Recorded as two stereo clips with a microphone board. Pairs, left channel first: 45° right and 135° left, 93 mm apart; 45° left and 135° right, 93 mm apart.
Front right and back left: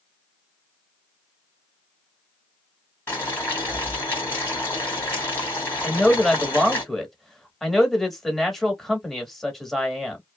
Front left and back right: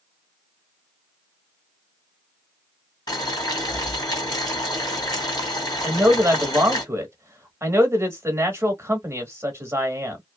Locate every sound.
3.1 s boiling: 15° left, 2 m
5.8 s a man speaking: 130° right, 1.0 m